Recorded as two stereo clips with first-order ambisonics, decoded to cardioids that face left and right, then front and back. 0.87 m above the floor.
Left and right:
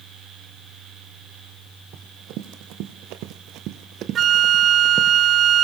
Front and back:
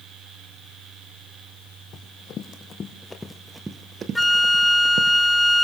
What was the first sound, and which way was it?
Running footsteps, 55° right.